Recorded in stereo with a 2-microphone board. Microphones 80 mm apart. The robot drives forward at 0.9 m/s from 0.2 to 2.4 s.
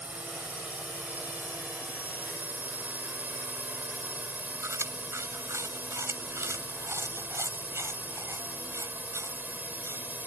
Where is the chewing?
35° right (ahead or behind).